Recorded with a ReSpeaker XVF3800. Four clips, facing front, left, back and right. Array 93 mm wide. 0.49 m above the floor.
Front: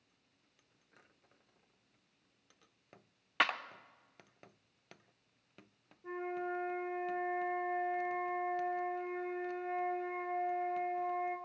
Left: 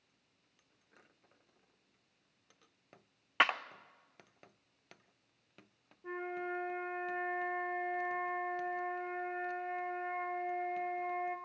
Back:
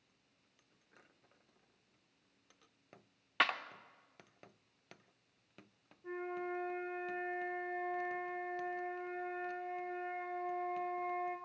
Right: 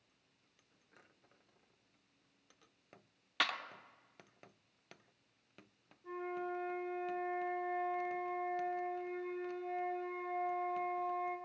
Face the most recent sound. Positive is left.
turn(degrees=65)